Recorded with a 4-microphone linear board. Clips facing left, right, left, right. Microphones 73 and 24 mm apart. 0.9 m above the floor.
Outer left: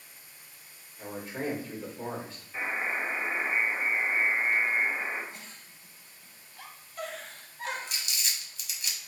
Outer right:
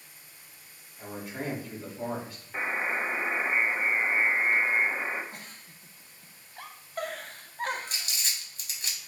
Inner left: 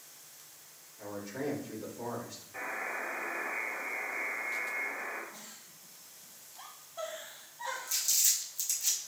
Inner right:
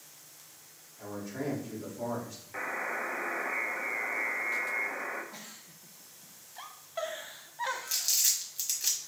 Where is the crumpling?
45° right (ahead or behind), 1.2 m.